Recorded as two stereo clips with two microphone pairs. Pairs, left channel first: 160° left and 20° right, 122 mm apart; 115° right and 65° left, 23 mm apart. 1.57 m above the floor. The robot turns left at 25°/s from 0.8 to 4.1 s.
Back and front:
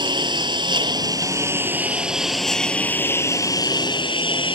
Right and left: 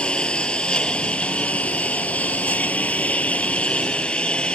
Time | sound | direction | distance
0.0 | a lawn mower | 75° right | ?